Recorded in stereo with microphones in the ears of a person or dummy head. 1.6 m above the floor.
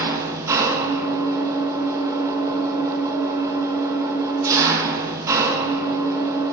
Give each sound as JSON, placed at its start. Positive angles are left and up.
{"t": 0.0, "sound": "an engine running", "side_deg": -20, "distance_m": 1.3}